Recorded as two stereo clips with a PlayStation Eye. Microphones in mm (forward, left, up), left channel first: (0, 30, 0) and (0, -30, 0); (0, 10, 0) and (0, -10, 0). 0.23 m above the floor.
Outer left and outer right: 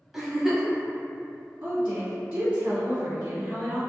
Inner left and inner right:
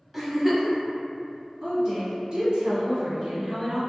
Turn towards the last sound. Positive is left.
turn(degrees=-40)  # may be behind; listen again after turning